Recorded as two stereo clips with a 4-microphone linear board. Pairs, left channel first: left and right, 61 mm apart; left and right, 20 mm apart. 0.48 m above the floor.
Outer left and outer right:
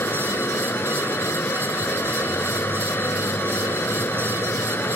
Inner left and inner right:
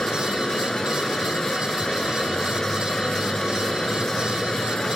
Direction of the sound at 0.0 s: 40° left (ahead or behind).